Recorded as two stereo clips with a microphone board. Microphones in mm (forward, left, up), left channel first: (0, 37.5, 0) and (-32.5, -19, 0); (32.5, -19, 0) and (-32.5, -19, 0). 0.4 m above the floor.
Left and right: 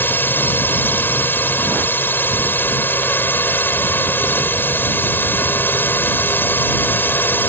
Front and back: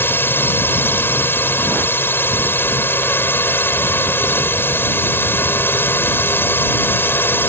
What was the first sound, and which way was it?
A drone, 25° left.